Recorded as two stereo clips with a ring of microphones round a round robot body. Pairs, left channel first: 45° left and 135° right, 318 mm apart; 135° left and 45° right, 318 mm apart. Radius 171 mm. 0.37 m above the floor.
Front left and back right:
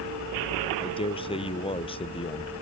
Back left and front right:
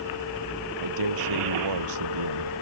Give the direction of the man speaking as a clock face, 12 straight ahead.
1 o'clock.